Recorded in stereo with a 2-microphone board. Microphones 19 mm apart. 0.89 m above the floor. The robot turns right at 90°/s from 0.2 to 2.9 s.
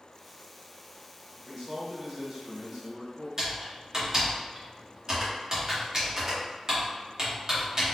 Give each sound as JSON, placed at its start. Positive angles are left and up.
{"t": 1.4, "sound": "a man speaking", "azimuth_deg": 165, "distance_m": 1.8}
{"t": 3.4, "sound": "typing on a keyboard", "side_deg": -35, "distance_m": 1.0}